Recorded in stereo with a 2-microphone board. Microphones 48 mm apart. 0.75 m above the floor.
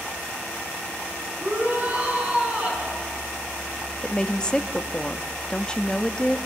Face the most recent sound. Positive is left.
turn(degrees=20)  # may be behind; listen again after turning